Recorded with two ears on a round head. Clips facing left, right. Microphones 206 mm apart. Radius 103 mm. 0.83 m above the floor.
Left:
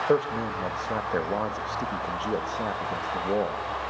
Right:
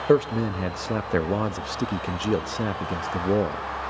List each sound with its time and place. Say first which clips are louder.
0.1 s a man speaking: right 5 dB; 35° right (ahead or behind), 0.6 m